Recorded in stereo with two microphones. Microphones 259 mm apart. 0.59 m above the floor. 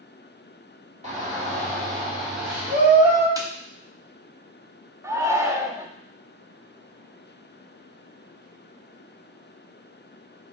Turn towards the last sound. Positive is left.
turn(degrees=-10)  # may be behind; listen again after turning